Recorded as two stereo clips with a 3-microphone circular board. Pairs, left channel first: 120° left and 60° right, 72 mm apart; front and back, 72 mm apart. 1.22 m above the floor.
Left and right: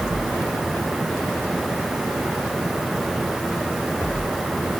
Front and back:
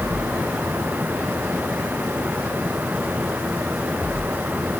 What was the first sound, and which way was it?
Only background noise.